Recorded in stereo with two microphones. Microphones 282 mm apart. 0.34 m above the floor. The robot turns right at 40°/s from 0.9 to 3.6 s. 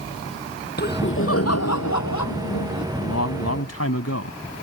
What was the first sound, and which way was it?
Laughter, 35° left.